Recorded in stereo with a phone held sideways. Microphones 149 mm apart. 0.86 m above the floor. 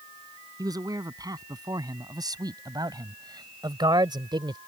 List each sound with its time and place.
0.6 s a man speaking: 25° right (ahead or behind); by 4.6 s 30° right (ahead or behind)